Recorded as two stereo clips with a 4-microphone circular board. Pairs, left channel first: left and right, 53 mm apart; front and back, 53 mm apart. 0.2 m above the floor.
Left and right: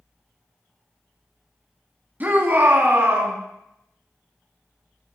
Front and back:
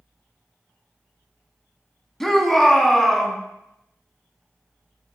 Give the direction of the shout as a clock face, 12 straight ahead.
3 o'clock.